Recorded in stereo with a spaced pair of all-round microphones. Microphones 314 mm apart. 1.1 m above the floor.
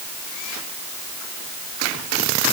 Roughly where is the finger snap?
No finger snap in this recording.